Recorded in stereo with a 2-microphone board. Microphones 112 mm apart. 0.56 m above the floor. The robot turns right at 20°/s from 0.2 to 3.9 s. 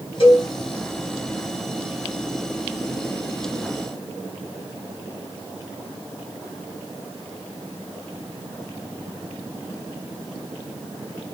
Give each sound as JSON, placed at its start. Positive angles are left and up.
{"t": 0.2, "sound": "a cowbell", "side_deg": 50, "distance_m": 1.6}